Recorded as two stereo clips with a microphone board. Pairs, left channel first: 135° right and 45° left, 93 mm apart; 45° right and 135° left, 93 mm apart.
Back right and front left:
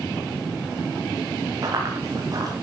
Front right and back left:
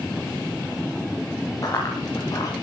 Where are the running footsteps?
Straight ahead, 6.5 m.